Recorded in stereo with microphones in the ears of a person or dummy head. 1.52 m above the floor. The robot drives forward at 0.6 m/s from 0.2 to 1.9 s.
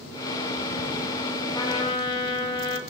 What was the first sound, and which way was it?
A trumpet, 20° left (ahead or behind).